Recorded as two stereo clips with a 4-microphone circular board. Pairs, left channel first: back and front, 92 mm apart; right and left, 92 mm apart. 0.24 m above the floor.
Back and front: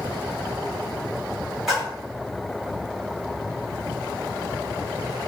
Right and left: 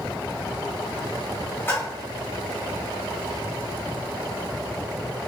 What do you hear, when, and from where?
1.7 s a splash: 85° right, 1.6 m